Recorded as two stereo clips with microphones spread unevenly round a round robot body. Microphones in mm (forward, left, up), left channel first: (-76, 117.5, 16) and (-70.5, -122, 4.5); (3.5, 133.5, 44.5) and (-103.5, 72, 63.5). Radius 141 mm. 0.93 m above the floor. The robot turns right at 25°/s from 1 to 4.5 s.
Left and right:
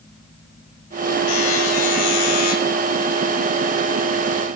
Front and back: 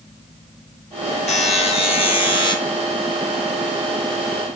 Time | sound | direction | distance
1.3 | a buzzer | 45° left | 2.0 m